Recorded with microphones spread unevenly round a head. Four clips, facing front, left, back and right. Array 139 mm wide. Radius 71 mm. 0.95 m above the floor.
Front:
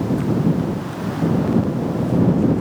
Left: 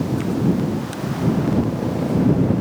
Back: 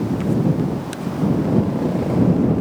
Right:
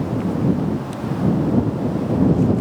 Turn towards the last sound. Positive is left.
No sound to turn to.